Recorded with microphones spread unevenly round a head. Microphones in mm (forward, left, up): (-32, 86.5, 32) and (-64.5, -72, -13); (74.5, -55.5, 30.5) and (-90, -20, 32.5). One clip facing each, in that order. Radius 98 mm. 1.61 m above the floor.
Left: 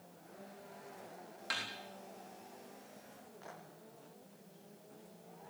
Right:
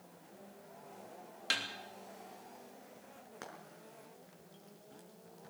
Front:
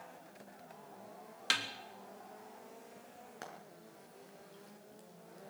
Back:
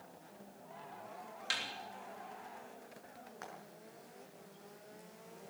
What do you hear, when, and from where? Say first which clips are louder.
1.5 s a snare drum: right 3 dB, front 5 dB; 35° right, 3.5 m
3.4 s frying: right 2 dB, front 2 dB; 65° right, 6 m